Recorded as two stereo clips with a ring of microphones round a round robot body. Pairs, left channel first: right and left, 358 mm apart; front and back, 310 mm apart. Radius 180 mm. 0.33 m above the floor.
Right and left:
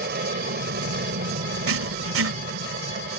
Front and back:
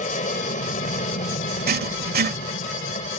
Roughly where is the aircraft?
Ahead left.